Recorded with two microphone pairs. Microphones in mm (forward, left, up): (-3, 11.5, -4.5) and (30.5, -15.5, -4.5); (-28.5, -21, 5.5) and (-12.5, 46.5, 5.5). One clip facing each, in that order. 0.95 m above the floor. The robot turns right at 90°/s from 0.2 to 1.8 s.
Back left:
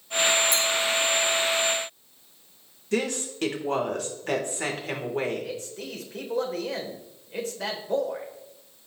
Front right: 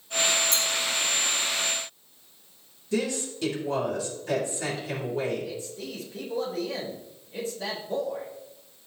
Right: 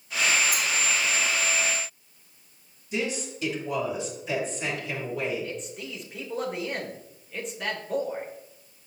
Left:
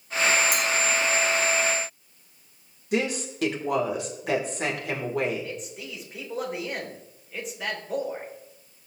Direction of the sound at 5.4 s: 165° left.